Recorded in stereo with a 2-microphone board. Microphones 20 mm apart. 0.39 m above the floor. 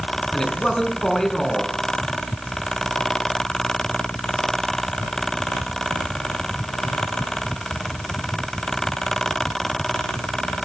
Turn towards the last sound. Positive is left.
turn(degrees=25)  # may be behind; listen again after turning